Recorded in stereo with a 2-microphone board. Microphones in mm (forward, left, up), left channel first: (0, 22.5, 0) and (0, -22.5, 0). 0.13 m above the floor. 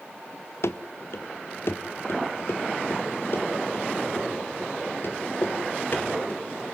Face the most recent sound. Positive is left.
turn(degrees=45)  # may be behind; listen again after turning